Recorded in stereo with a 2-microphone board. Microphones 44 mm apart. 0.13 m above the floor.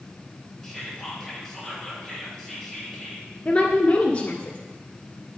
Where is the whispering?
5° left (ahead or behind), 2.5 m.